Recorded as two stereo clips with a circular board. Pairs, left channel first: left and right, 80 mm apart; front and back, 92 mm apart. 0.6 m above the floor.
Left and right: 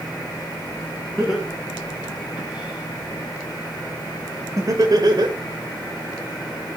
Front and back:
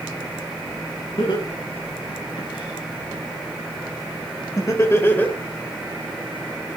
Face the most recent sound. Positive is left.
turn(degrees=-75)